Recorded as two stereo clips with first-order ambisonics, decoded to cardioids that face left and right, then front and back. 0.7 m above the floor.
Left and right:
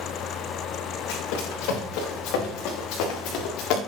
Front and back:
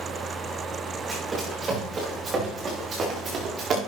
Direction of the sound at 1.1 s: 105° left.